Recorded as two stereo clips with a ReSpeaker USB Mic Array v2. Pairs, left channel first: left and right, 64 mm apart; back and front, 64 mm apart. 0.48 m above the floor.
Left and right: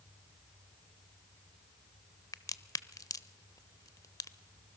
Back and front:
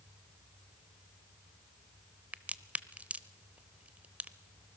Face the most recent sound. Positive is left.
turn(degrees=65)